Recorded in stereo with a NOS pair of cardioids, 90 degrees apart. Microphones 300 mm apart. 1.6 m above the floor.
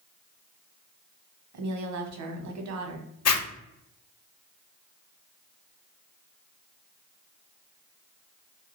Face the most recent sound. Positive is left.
turn(degrees=55)